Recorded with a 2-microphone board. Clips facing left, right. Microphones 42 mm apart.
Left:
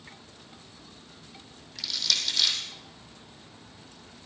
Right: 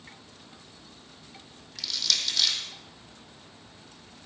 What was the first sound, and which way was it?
Crushing, centre (ahead or behind).